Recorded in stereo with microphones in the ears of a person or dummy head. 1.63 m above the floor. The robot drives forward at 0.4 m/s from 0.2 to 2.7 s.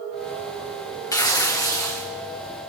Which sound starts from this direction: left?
Tearing paper, at 1.1 s.